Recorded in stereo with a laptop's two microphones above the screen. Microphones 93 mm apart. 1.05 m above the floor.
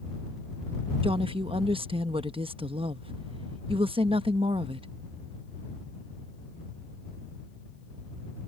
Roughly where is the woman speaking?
Right.